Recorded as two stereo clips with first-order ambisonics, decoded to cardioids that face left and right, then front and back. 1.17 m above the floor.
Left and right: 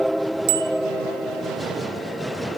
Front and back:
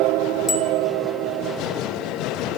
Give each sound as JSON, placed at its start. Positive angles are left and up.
{"t": 0.5, "sound": "a bicycle bell", "azimuth_deg": -80, "distance_m": 3.0}